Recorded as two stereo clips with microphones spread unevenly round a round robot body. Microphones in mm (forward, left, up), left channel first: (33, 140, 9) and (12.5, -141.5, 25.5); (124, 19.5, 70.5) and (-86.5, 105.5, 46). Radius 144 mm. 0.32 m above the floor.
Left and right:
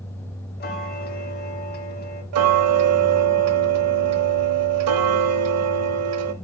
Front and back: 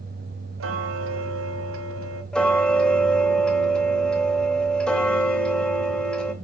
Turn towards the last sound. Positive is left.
turn(degrees=-115)